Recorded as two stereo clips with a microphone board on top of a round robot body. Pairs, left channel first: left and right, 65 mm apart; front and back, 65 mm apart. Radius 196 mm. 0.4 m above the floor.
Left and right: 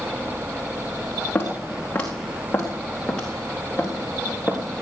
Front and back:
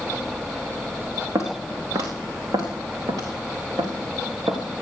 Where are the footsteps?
150° left, 3 m; by 4.6 s 170° left, 4.5 m.